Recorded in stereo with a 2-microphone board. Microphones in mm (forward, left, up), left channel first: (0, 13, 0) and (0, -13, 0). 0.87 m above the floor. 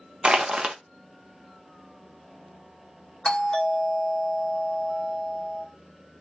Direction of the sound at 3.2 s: 30° left (ahead or behind).